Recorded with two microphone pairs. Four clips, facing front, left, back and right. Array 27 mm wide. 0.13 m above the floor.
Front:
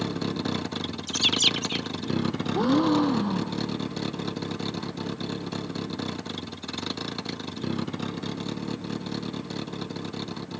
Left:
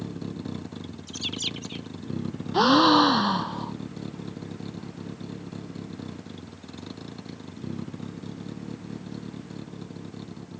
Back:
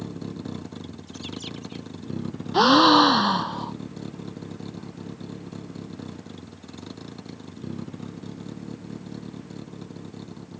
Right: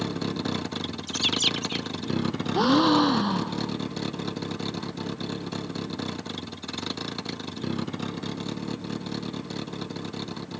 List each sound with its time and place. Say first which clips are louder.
0.0 s a vehicle: right 6 dB, front 6 dB; 45° right
1.1 s a bird: right 7 dB, front 16 dB; 20° right
2.5 s a gasp: left 3 dB, back 8 dB; 165° left